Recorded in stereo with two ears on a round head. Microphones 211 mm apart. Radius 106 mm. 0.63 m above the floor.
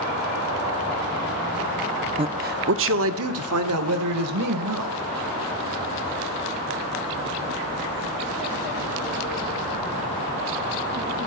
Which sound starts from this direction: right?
A man speaking, at 2.2 s.